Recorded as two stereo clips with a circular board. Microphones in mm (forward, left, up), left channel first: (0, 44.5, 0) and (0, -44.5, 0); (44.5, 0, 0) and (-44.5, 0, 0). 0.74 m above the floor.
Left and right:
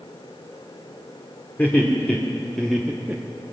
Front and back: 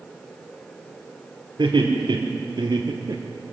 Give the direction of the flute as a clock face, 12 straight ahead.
No flute in this recording.